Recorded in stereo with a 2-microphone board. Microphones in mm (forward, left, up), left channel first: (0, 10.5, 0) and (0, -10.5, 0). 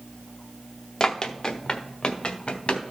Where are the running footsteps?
35° left (ahead or behind), 0.9 m; by 2.8 s 60° left (ahead or behind), 1.7 m.